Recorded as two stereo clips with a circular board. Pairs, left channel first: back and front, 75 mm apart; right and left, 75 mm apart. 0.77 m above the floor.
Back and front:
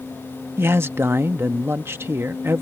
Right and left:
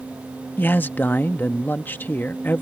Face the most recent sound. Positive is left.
turn(degrees=-40)